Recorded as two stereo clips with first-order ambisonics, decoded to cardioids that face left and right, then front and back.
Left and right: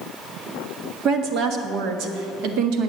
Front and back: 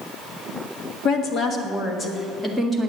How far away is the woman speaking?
About 1.4 m.